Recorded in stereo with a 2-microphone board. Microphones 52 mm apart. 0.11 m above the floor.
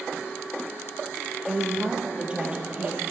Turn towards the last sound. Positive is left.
turn(degrees=-30)  # may be behind; listen again after turning